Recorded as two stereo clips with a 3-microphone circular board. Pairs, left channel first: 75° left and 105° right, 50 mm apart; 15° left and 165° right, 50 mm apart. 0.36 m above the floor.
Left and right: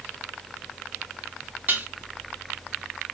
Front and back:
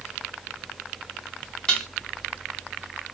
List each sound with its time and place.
1.7 s dishes clattering: 55° right, 2.0 m